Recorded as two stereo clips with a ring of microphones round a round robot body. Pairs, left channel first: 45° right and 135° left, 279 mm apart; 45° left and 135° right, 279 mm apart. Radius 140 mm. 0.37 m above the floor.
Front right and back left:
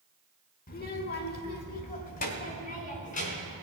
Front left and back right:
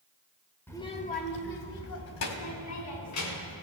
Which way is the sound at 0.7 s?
30° right.